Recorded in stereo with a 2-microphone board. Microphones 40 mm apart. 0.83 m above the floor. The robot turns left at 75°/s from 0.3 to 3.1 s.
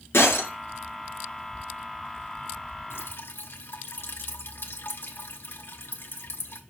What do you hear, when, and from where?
0.1 s breaking glass: 75° left (ahead or behind), 5 m; by 0.5 s 60° left (ahead or behind), 5 m
2.9 s dripping: 75° left (ahead or behind), 1.5 m; by 6.6 s 65° left (ahead or behind), 1.5 m